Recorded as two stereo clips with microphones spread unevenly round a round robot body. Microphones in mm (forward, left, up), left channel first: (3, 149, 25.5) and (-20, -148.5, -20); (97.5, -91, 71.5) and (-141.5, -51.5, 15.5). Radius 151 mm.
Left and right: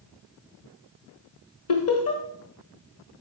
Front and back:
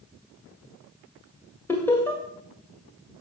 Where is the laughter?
85° left, 1.6 m.